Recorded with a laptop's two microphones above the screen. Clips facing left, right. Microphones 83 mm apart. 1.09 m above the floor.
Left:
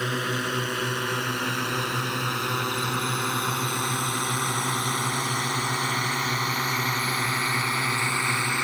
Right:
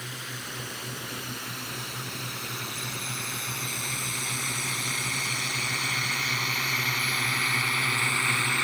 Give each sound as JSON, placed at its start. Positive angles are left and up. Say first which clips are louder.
{"t": 0.0, "sound": "a drone", "louder": "left 12 dB", "side_deg": 80}